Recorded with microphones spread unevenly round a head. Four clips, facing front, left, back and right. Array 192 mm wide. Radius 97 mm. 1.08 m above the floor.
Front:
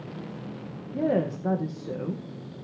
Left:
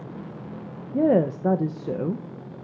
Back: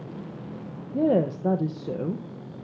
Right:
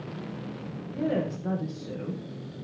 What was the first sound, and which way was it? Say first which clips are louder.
A woman speaking: left 9 dB, back 3 dB; 115° left.